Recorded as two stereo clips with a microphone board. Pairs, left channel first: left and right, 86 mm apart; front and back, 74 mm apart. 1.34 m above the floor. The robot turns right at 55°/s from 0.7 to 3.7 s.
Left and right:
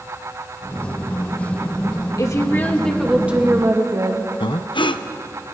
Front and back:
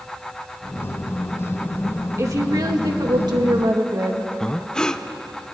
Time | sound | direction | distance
2.2 | a woman speaking | 135° left | 2.5 m
4.4 | breathing | 80° left | 0.7 m